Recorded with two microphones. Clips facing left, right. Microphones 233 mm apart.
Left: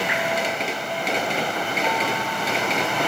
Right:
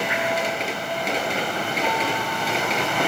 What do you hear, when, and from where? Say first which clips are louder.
0.1 s dripping: even; 75° left (ahead or behind), 9.5 m